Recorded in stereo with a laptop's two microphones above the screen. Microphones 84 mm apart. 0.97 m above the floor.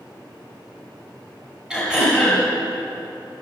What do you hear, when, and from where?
1.7 s throat clearing: 10° right (ahead or behind), 5.5 m